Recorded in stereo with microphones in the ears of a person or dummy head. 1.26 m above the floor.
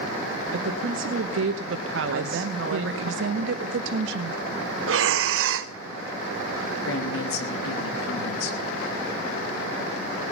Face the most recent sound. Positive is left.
turn(degrees=80)